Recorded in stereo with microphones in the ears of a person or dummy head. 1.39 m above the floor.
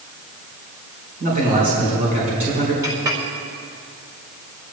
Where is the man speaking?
45° right (ahead or behind), 5.5 m.